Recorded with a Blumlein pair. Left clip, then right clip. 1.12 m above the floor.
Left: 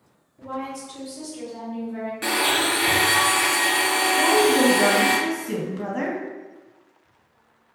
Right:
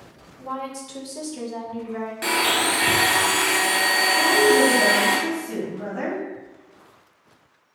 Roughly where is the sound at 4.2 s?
Ahead left.